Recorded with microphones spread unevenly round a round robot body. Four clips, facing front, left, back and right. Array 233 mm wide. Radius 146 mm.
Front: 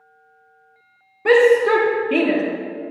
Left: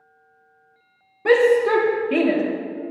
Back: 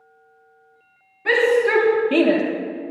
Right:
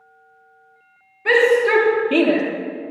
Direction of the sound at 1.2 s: 40° left.